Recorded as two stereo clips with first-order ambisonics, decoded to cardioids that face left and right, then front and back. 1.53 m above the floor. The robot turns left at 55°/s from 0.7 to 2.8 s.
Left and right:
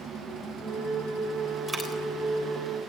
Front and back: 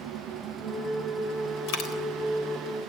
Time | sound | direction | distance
1.7 | a dropped coin | 5° right | 3.5 m